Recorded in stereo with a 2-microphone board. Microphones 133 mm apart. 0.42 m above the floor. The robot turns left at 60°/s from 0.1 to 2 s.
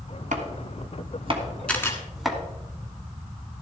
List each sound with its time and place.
0.3 s chopping: 75° right (ahead or behind), 1.7 m; by 2.4 s centre (ahead or behind), 1.7 m
1.7 s a camera shutter: 10° left (ahead or behind), 1.8 m; by 2.0 s 25° left (ahead or behind), 1.8 m